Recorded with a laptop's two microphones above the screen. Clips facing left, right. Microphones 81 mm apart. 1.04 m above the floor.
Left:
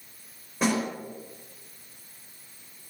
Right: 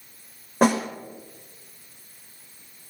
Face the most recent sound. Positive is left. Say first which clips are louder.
# right 6 dB
turn(degrees=-50)  # may be behind; listen again after turning